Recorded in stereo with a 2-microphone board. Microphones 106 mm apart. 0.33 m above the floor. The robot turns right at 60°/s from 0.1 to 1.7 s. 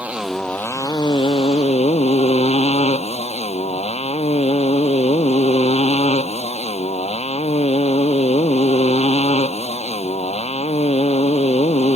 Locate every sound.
0.0 s a motorcycle: 15° right; by 12.0 s 85° left